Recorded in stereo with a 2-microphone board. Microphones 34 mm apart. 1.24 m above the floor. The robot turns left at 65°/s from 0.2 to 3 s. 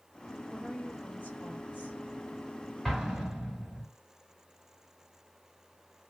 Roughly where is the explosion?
Centre.